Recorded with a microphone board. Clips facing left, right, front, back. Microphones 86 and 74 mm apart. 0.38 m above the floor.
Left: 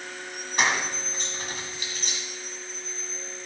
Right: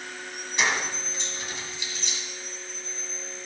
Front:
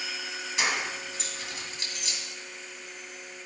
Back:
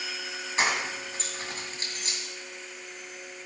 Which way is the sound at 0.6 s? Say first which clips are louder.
Left 1 dB, back 2 dB; 130° left.